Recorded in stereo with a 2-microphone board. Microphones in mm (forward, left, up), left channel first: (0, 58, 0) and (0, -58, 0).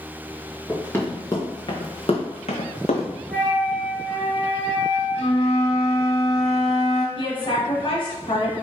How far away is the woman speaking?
About 1.9 m.